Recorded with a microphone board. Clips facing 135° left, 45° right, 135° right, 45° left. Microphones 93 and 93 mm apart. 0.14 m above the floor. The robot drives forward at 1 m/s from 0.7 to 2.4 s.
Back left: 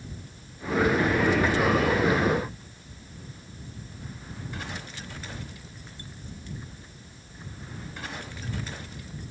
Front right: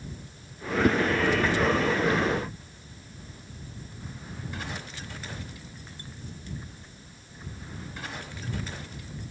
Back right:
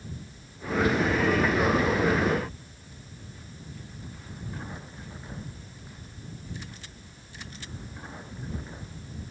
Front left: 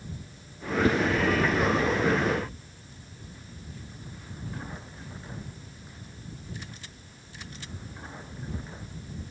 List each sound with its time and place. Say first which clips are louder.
0.8 s a whoosh: front right 2 dB, front left 2 dB; 10° right